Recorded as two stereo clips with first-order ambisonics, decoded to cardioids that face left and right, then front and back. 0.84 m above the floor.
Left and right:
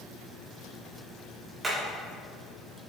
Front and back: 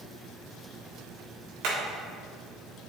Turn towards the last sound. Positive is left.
turn(degrees=-160)